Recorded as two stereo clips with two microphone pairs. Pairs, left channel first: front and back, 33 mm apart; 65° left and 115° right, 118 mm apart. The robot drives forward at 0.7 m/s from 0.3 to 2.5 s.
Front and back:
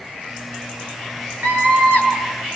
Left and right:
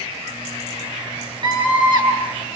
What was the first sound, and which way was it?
A scream, 165° right.